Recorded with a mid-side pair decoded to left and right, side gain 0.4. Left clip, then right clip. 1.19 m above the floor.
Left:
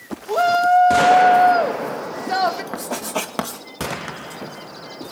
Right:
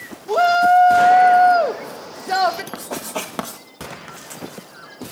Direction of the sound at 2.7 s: 20° left.